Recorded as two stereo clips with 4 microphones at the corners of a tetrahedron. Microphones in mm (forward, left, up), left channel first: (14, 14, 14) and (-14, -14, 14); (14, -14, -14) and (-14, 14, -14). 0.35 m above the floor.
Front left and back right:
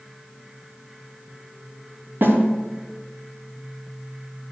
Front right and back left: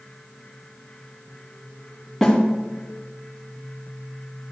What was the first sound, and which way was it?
A snare drum, 130° right.